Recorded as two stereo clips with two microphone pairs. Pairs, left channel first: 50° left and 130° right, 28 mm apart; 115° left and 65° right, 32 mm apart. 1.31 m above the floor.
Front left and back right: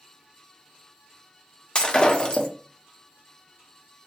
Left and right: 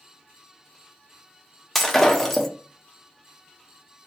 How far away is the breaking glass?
About 0.8 m.